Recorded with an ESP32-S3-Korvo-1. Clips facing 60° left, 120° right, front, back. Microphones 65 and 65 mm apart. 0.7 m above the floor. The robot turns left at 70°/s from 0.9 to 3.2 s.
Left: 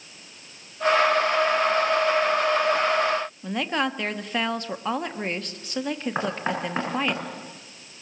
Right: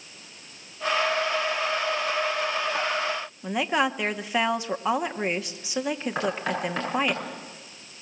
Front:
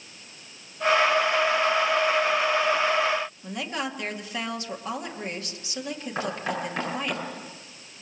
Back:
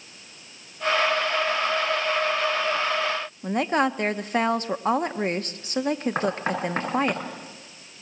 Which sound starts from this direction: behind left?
Knocking, at 6.2 s.